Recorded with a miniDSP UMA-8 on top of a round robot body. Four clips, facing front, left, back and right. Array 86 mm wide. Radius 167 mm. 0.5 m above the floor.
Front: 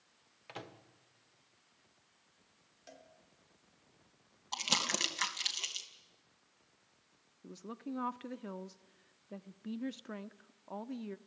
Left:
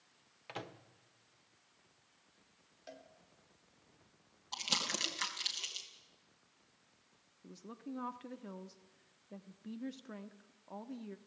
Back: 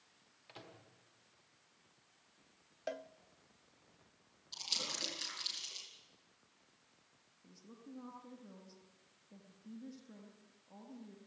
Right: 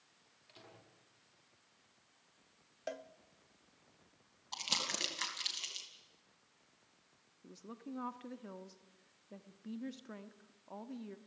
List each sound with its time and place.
0.5 s a microwave: 60° left, 1.5 m
2.9 s a cowbell: 140° right, 0.7 m
4.5 s crumpling: straight ahead, 3 m
7.4 s a woman speaking: straight ahead, 1.3 m